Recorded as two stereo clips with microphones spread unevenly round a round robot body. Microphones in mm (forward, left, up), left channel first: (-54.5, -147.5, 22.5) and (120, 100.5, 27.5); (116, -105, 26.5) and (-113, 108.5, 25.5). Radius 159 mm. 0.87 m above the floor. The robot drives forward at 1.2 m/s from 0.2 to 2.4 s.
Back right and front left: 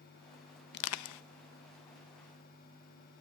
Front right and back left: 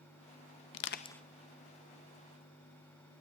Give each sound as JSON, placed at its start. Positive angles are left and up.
{"t": 0.7, "sound": "crushing", "azimuth_deg": -70, "distance_m": 0.6}